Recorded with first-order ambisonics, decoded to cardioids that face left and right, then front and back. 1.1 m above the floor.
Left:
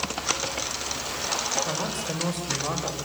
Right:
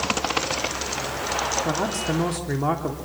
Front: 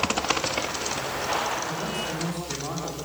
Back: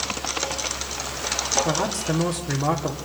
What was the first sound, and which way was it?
A man speaking, 125° right.